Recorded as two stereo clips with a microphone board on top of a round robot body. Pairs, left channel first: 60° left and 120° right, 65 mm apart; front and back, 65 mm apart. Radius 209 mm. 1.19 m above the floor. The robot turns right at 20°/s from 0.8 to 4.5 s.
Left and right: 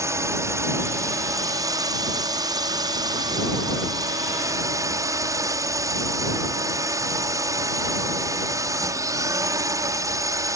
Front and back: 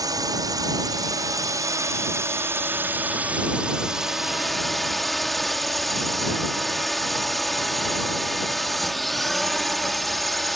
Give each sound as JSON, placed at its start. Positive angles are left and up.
{"t": 0.0, "sound": "a drone", "azimuth_deg": -160}